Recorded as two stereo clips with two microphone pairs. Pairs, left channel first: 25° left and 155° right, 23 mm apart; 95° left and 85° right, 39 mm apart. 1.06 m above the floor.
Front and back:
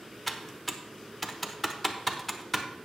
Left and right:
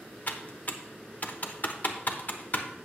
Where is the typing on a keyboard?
115° left, 0.9 m.